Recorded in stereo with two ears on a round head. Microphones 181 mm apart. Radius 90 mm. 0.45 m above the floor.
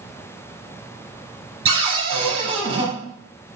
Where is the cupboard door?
25° right (ahead or behind), 0.8 m.